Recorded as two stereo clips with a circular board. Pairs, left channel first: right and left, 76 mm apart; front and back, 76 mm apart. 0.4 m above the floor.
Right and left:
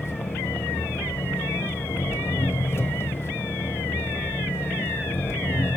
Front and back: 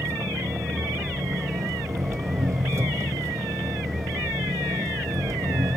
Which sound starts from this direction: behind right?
An engine running, at 0.0 s.